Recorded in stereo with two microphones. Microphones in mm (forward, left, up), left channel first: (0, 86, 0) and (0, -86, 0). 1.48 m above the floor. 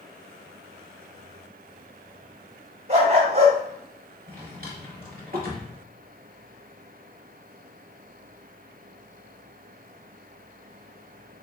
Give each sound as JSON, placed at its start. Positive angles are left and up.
{"t": 2.9, "sound": "a dog barking", "side_deg": -35, "distance_m": 1.3}
{"t": 4.3, "sound": "a drawer", "side_deg": -55, "distance_m": 1.8}